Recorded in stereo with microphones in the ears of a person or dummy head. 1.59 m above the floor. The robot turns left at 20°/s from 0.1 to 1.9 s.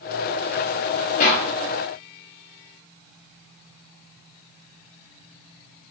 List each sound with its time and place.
1.2 s a clap: 40° left (ahead or behind), 1.9 m; by 1.5 s 35° left (ahead or behind), 1.9 m